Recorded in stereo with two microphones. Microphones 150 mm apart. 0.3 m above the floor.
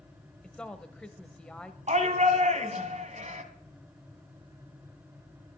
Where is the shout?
50° right (ahead or behind), 2.5 m.